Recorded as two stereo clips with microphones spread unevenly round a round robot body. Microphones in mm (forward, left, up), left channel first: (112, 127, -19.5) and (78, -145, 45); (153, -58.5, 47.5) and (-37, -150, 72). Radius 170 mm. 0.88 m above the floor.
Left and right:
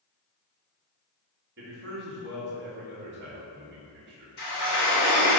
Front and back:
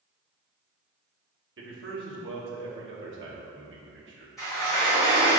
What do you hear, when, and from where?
1.6 s a man speaking: 155° right, 1.5 m
4.4 s a sliding door: 115° left, 2.5 m